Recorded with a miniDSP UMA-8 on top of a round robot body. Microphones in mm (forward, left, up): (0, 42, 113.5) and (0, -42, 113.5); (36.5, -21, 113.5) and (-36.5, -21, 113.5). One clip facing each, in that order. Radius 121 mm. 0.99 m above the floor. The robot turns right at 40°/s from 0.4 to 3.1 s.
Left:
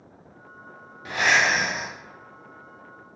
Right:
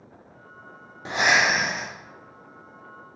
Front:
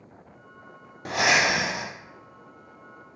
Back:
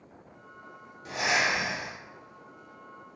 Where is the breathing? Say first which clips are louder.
Even, front 5 dB; 30° right, 0.6 m; by 1.9 s 10° left, 0.6 m.